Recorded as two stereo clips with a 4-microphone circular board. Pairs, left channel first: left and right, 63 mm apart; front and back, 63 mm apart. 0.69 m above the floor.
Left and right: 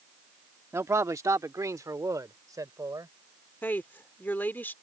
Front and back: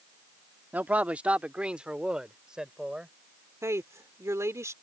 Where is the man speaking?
120° right; by 3.1 s 100° right.